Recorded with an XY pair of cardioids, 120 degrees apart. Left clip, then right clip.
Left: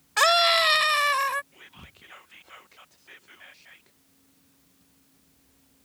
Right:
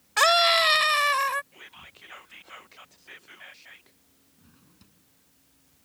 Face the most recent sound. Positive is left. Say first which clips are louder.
# right 4 dB
turn(degrees=-70)